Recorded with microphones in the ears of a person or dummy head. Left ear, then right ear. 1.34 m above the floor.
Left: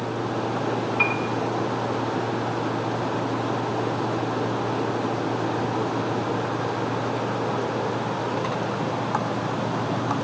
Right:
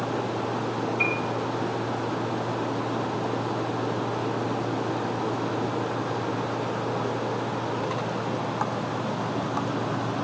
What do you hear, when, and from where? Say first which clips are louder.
1.0 s a piano: left 3 dB; 15° left (ahead or behind), 1.2 m